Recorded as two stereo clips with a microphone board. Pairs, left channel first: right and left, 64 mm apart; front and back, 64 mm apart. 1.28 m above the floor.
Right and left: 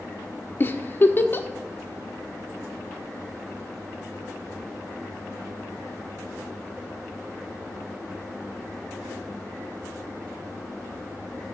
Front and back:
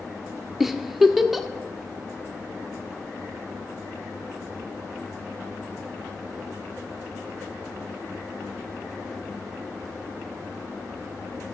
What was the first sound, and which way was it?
A giggle, 90° right.